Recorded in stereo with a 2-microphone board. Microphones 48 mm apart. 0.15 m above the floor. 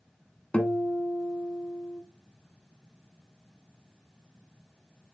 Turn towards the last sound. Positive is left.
turn(degrees=20)  # may be behind; listen again after turning